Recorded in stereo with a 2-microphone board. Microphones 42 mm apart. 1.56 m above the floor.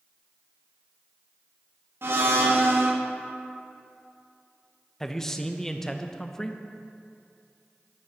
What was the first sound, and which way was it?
A blender, 65° right (ahead or behind).